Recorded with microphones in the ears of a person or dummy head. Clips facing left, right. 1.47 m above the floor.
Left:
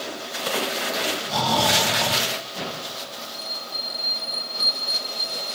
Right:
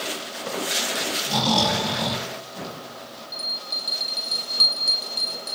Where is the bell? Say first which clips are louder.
Left 2 dB; 60° right (ahead or behind), 6 m.